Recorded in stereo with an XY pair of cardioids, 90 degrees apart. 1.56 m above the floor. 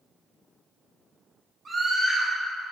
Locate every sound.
1.6 s a scream: 40° right, 2.0 m